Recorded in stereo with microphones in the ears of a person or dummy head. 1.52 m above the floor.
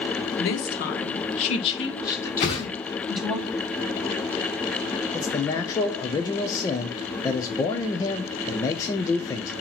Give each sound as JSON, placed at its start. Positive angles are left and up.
{"t": 0.4, "sound": "a woman speaking", "side_deg": 70, "distance_m": 1.4}
{"t": 2.4, "sound": "a whoosh", "side_deg": 20, "distance_m": 1.2}
{"t": 5.1, "sound": "a man speaking", "side_deg": 15, "distance_m": 0.6}